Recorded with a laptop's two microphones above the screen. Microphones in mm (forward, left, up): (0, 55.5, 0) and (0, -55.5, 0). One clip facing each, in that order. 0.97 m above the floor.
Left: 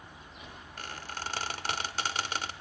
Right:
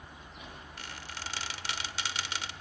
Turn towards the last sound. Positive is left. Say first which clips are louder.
# left 5 dB
turn(degrees=45)  # may be behind; listen again after turning